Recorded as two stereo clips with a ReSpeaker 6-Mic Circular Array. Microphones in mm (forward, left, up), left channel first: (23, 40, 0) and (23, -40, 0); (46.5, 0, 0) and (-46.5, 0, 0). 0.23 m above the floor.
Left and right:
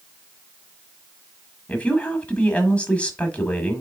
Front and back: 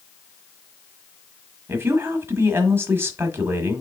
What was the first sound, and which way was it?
A woman speaking, 150° left.